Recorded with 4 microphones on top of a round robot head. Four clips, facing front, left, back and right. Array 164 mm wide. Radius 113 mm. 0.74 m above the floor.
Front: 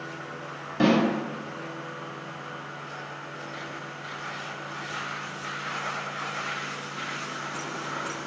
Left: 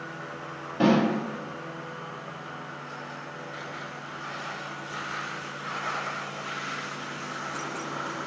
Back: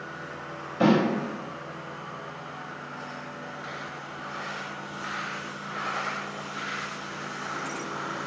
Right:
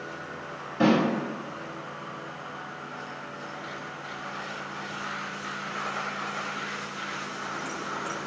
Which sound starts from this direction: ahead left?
A snare drum, at 0.8 s.